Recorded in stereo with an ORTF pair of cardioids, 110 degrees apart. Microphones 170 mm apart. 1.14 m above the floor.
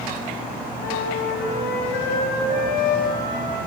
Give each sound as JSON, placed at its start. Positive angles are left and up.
{"t": 0.8, "sound": "a flute", "azimuth_deg": 70, "distance_m": 5.5}